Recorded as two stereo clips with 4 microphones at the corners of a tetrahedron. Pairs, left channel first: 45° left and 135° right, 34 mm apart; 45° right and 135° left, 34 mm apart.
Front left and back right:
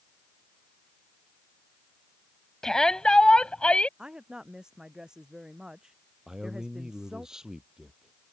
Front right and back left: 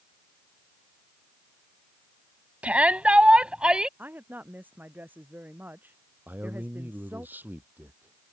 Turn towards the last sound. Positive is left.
turn(degrees=155)